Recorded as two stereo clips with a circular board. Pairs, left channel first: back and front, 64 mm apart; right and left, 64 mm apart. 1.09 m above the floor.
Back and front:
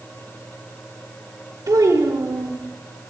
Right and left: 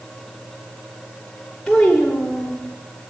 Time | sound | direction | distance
1.7 | a child speaking | 5° right | 2 m